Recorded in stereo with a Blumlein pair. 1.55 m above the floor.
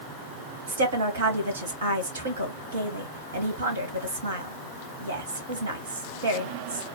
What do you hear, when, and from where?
0.7 s a woman speaking: 70° right, 1.7 m